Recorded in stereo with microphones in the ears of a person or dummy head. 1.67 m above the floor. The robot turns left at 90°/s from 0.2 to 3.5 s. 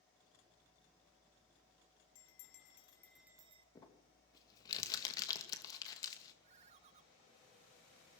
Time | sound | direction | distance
2.1 | a bell | 90° left | 1.4 m
3.8 | crumpling | 20° left (ahead or behind) | 2.5 m
6.4 | a ringtone | 35° right (ahead or behind) | 1.0 m